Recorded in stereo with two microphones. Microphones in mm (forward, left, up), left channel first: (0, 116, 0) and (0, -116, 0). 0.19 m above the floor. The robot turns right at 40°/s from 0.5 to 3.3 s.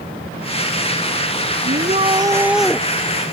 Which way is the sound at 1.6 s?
40° right.